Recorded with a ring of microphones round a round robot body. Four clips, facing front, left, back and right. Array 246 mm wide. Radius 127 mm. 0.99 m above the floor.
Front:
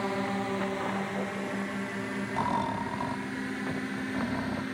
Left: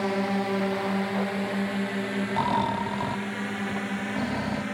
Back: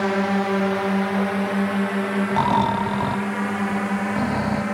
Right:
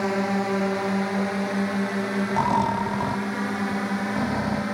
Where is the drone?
170° right; by 4.7 s 160° right.